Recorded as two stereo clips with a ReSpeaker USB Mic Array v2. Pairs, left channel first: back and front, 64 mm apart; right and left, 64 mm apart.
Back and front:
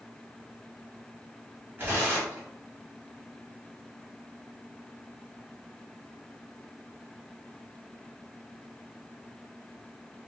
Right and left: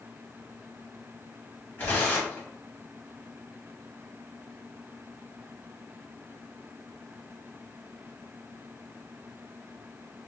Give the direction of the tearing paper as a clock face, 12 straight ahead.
1 o'clock.